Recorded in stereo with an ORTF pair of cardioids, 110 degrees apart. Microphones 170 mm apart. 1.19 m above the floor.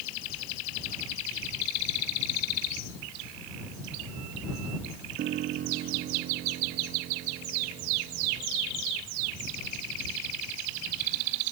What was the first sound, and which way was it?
A piano, 65° right.